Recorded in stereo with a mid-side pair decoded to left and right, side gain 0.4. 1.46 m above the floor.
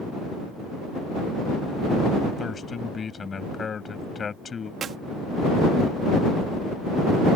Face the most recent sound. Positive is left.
turn(degrees=-60)